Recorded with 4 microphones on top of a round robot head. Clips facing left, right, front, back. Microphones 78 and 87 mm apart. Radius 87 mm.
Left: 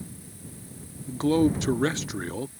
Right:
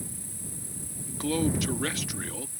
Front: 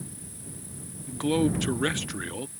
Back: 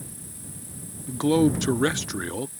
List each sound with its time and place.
0.0 s an insect: 115° right
1.1 s a man speaking: 125° left